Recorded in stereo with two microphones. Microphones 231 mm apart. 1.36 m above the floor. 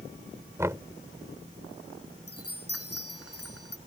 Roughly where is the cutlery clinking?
No cutlery clinking in this recording.